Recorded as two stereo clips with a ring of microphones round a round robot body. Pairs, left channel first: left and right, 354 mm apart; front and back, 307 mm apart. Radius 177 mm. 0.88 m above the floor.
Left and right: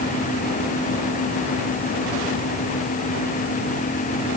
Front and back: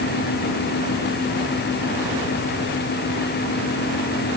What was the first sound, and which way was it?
Only background noise.